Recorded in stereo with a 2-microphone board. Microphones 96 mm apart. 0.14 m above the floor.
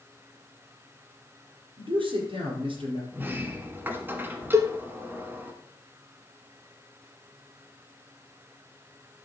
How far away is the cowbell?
About 0.6 m.